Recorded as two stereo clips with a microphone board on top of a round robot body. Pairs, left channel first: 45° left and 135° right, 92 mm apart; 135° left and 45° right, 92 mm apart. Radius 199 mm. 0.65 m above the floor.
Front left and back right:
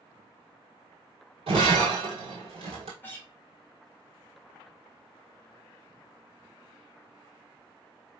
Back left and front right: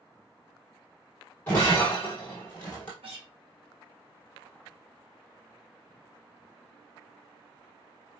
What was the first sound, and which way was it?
Breaking glass, 155° right.